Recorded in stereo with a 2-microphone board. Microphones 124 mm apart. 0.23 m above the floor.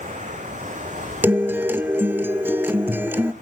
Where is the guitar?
15° right (ahead or behind), 0.6 m.